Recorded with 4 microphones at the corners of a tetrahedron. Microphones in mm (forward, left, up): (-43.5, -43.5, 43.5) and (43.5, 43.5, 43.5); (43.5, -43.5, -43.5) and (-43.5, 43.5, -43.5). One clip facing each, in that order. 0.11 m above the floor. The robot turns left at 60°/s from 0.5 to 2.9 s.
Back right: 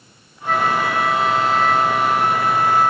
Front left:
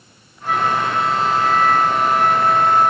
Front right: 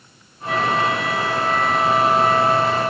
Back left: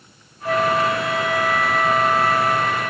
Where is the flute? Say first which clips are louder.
Even, back left 1 dB; 120° left, 1.5 m; by 2.9 s 20° right, 1.5 m.